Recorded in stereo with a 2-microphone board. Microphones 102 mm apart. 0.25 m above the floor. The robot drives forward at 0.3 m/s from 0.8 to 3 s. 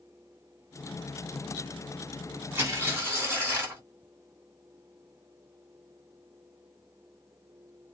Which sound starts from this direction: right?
Tearing paper, at 2.5 s.